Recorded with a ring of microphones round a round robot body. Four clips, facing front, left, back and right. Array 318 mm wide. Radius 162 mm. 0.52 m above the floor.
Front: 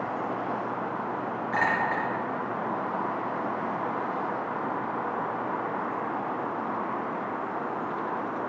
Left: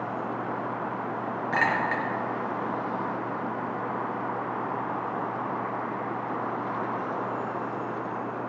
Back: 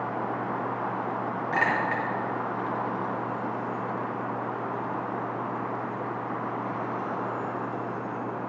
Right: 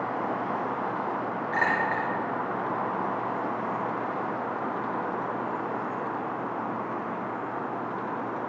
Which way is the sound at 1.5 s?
125° left.